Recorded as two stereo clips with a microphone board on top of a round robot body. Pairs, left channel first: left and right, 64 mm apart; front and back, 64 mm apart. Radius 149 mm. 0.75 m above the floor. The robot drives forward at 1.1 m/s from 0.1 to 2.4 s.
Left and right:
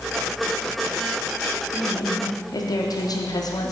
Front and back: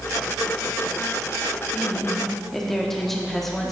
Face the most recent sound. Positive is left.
turn(degrees=85)